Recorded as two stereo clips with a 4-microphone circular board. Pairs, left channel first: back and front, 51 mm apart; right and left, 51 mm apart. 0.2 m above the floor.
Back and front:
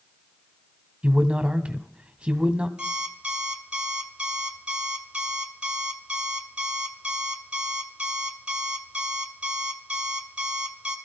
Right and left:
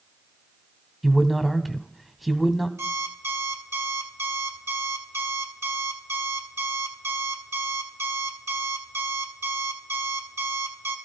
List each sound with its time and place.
1.0 s a man speaking: 5° left, 1.0 m
2.8 s an alarm clock: 70° left, 1.8 m